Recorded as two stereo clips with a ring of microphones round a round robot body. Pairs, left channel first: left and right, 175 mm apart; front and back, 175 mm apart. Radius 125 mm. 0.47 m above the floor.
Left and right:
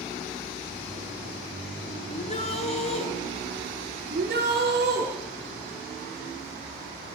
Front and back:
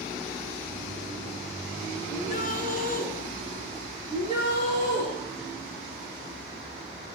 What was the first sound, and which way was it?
A shout, 40° left.